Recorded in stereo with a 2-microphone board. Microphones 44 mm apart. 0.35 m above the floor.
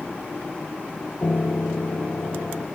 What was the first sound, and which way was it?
A piano, 55° left (ahead or behind).